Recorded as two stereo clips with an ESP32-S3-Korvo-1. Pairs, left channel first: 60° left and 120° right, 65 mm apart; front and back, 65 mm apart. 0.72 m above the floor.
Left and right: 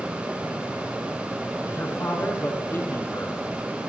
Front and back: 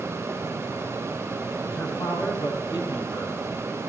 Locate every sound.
1.7 s a man speaking: 5° left, 8 m